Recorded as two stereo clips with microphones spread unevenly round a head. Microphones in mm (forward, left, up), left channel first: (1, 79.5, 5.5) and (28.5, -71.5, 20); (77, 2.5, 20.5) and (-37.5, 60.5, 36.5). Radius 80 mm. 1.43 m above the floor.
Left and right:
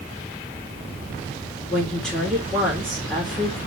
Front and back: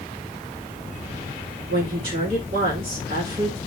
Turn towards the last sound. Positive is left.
turn(degrees=-170)